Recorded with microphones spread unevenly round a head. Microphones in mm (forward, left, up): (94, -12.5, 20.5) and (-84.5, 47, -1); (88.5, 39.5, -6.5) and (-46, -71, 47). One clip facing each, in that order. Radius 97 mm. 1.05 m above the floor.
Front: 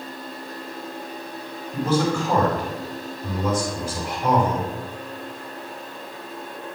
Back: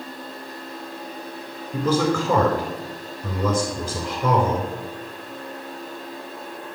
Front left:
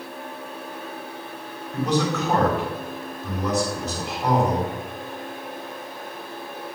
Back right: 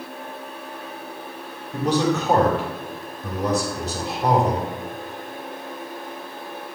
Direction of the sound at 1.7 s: 155° left.